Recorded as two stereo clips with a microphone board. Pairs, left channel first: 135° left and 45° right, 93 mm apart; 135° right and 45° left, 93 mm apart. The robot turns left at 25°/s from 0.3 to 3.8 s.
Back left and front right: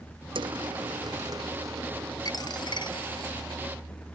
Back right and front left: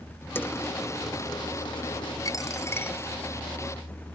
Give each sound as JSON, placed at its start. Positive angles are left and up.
{"t": 0.3, "sound": "a dropped coin", "azimuth_deg": -65}
{"t": 2.2, "sound": "a dropped coin", "azimuth_deg": 175}